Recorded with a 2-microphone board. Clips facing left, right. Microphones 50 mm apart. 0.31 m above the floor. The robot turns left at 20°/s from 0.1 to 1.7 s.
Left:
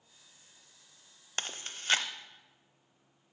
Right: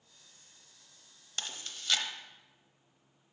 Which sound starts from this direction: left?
Chewing, at 1.4 s.